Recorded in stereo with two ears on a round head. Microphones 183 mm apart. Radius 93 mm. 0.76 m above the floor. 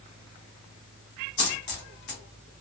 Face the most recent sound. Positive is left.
turn(degrees=55)  # may be behind; listen again after turning